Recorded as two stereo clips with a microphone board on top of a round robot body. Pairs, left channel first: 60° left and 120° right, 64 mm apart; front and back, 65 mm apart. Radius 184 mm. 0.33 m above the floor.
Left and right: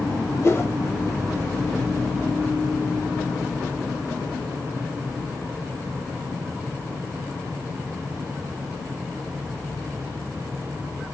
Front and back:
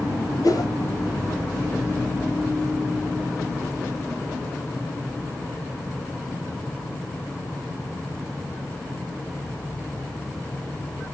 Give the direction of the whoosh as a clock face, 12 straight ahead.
11 o'clock.